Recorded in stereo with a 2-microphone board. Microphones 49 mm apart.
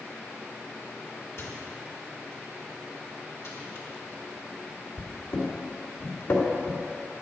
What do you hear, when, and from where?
1.4 s a microwave: 60° left (ahead or behind), 1.7 m